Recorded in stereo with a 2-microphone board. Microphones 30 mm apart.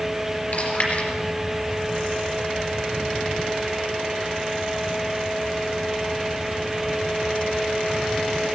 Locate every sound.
0.5 s chewing: 50° left (ahead or behind), 4 m